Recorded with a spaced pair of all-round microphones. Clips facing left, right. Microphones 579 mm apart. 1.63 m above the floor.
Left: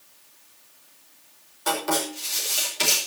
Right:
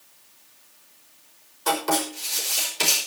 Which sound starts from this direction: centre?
Writing, at 1.7 s.